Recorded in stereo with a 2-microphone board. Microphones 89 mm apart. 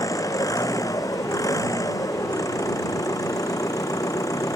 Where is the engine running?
40° left (ahead or behind).